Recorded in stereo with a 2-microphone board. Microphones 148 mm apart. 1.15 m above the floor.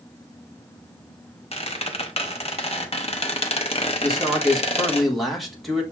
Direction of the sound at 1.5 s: 45° left (ahead or behind).